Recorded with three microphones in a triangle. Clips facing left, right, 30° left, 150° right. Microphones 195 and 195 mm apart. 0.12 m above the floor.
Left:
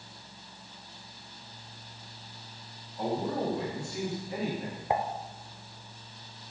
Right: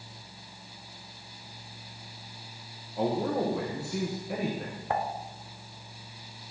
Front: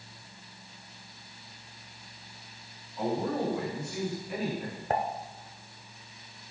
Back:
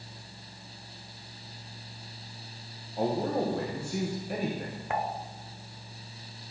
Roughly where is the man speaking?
Right.